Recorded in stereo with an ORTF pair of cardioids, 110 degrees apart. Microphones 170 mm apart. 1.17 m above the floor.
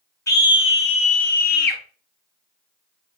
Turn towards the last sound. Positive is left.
turn(degrees=60)